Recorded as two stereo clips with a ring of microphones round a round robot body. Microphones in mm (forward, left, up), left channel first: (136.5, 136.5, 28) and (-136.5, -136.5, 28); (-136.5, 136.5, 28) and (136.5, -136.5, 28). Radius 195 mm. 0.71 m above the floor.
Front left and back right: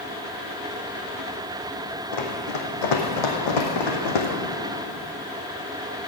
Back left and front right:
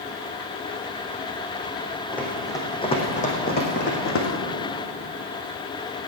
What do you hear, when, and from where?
2.1 s running footsteps: 50° left, 3 m; by 4.3 s 80° left, 2.5 m